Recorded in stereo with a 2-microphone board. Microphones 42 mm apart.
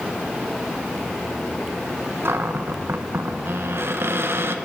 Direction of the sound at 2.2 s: 60° right (ahead or behind).